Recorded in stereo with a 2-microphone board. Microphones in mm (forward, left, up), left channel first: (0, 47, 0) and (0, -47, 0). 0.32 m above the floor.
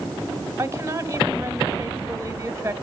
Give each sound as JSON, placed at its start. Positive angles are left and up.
{"t": 0.6, "sound": "a woman speaking", "side_deg": -25, "distance_m": 1.4}